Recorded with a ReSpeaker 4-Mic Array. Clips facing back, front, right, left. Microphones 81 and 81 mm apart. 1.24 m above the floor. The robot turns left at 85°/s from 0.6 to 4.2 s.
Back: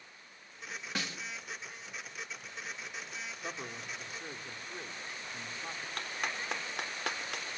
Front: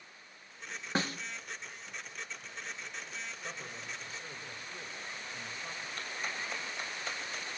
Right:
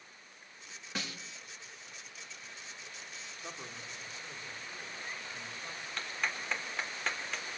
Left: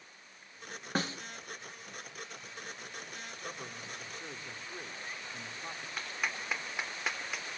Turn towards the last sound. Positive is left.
turn(degrees=175)